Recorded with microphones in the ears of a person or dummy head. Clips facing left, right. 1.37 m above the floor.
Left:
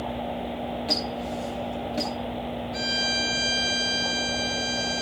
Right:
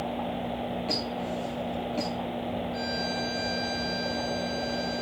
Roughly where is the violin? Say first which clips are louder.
Even; left.